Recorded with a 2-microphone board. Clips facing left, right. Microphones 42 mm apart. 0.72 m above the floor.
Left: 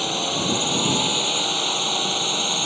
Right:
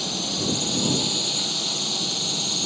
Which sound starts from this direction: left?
A drone, at 0.0 s.